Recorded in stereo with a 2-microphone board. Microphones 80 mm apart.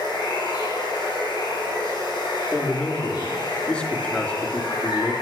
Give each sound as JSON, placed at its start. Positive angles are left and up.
{"t": 0.0, "sound": "running water", "side_deg": 65, "distance_m": 8.0}
{"t": 2.5, "sound": "a man speaking", "side_deg": 15, "distance_m": 3.5}